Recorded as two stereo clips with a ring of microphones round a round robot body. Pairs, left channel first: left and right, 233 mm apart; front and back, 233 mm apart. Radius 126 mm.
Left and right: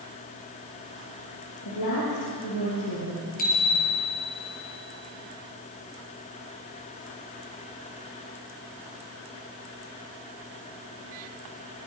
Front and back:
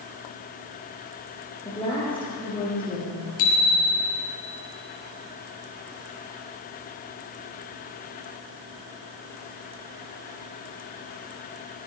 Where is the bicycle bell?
30° left, 6 m.